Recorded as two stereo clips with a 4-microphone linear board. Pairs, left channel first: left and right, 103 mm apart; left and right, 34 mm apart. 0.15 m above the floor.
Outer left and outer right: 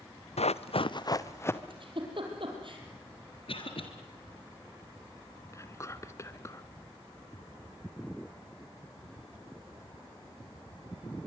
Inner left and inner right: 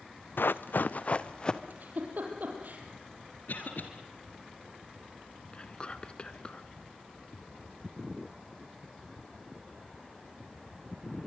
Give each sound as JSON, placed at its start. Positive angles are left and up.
{"t": 0.4, "sound": "running footsteps", "side_deg": 80, "distance_m": 0.9}
{"t": 1.7, "sound": "a giggle", "side_deg": -55, "distance_m": 4.5}
{"t": 3.5, "sound": "a cough", "side_deg": 60, "distance_m": 3.0}
{"t": 5.5, "sound": "whispering", "side_deg": 30, "distance_m": 1.5}